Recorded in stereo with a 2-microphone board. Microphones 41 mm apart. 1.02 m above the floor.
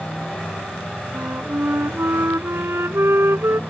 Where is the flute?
85° right.